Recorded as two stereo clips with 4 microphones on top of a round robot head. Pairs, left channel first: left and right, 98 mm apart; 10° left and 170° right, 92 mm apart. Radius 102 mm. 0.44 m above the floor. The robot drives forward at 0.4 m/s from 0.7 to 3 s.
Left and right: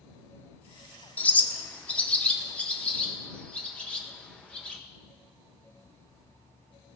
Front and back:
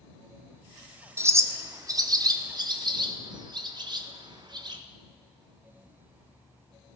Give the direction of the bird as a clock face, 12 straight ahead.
7 o'clock.